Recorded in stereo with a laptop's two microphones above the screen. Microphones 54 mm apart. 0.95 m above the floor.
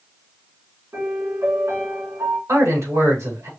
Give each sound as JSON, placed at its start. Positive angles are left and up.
{"t": 0.9, "sound": "a piano", "side_deg": -75, "distance_m": 2.5}
{"t": 2.5, "sound": "a man speaking", "side_deg": -80, "distance_m": 3.5}